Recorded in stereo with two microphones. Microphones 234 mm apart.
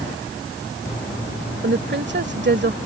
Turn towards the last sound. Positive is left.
turn(degrees=-50)  # may be behind; listen again after turning